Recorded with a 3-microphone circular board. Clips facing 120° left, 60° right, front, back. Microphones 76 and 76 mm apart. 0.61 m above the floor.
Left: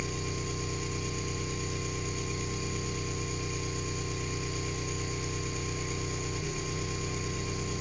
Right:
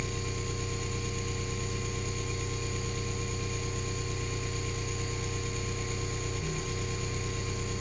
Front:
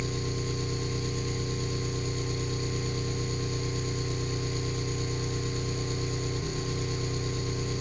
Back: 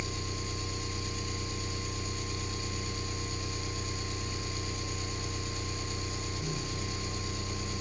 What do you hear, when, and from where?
0.0 s an engine running: 35° left, 1.0 m